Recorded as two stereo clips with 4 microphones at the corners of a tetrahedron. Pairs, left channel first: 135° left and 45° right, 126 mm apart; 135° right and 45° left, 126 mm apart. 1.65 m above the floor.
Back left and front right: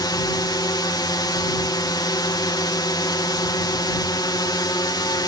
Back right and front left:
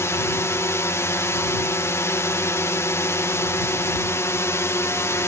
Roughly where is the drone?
Behind.